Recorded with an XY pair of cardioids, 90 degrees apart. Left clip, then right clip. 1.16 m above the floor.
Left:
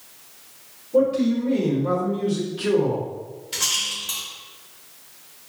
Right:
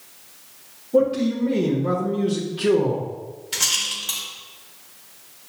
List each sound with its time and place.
0.9 s a man speaking: 40° right, 1.1 m
3.5 s a rattle: 40° right, 1.7 m